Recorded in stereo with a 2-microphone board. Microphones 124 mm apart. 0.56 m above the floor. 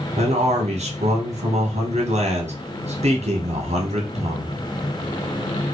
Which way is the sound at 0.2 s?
60° right (ahead or behind).